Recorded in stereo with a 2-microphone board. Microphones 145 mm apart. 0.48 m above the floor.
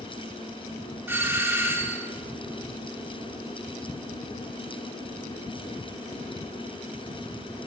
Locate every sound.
1.1 s a doorbell: 15° right (ahead or behind), 1.2 m